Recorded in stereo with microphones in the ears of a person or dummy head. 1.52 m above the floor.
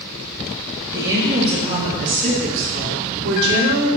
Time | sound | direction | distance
0.9 | a woman speaking | 15° right (ahead or behind) | 1.9 m